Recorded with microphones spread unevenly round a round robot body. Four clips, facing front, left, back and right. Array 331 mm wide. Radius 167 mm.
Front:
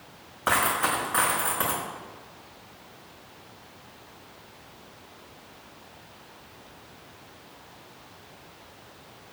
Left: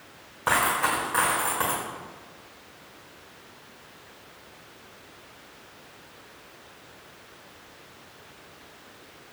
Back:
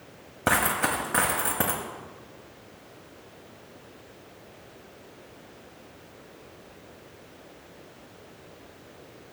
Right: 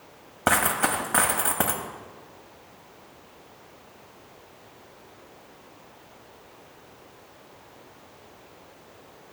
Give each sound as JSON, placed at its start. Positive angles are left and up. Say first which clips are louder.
{"t": 0.5, "sound": "a dropped coin", "louder": "even, even", "azimuth_deg": -140, "distance_m": 1.0}